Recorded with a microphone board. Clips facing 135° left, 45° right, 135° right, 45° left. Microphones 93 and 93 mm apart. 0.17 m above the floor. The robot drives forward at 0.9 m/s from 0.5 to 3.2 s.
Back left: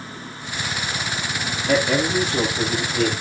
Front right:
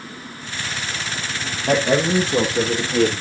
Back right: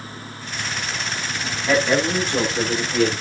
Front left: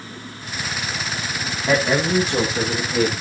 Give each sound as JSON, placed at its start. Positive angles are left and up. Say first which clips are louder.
{"t": 1.7, "sound": "a man speaking", "louder": "front right 2 dB, even", "azimuth_deg": -30, "distance_m": 7.5}